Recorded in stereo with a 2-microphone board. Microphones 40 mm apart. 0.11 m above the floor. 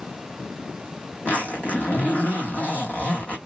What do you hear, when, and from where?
1.2 s a zipper: 40° left (ahead or behind), 0.9 m